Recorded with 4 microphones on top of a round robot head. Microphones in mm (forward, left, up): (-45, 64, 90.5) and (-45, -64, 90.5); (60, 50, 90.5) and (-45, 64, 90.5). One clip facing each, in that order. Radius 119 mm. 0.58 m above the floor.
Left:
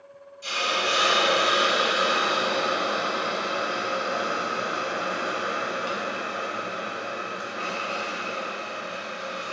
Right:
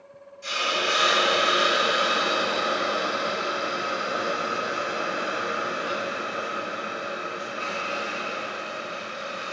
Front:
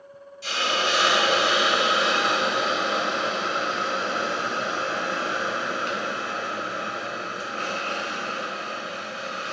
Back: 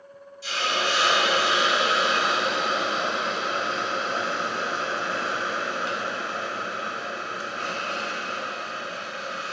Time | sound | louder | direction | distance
0.4 | a hiss | even, front 1 dB | 20° left | 1.3 m